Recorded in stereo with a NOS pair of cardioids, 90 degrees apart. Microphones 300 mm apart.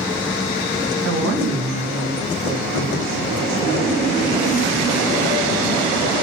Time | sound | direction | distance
1.0 | a woman speaking | 50° right | 3.5 m